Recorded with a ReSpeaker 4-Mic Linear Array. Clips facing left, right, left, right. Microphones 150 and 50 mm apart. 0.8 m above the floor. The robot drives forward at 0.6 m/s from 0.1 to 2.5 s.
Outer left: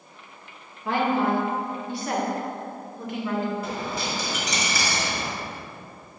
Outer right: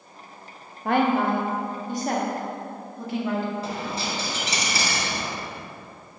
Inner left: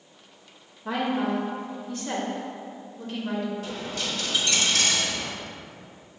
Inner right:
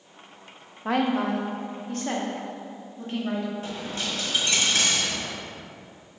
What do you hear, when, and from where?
0.8 s a woman speaking: 55° right (ahead or behind), 0.8 m; by 3.5 s 35° right (ahead or behind), 1.2 m
3.6 s a dropped coin: 30° right (ahead or behind), 1.5 m